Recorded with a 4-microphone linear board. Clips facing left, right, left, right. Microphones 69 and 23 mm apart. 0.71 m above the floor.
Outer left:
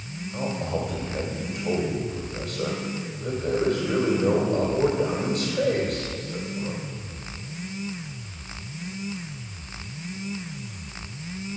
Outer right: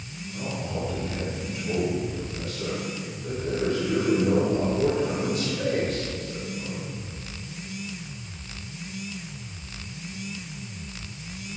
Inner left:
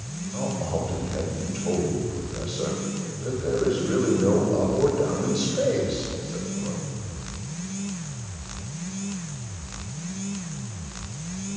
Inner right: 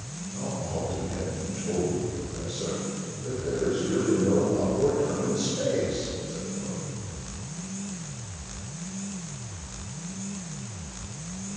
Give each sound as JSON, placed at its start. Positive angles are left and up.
{"t": 0.3, "sound": "a man speaking", "side_deg": 50, "distance_m": 2.5}